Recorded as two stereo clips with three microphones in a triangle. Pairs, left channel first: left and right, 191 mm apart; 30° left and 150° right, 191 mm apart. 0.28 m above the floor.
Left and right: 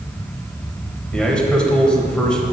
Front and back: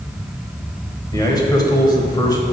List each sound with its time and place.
1.1 s a man speaking: 15° left, 1.0 m